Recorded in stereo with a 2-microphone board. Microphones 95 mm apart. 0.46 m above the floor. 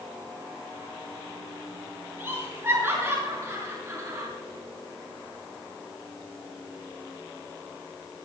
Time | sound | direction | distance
2.2 | laughter | 20° right (ahead or behind) | 6 m